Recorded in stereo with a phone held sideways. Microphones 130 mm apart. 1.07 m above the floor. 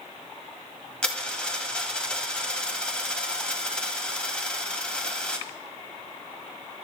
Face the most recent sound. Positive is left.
turn(degrees=10)  # may be behind; listen again after turning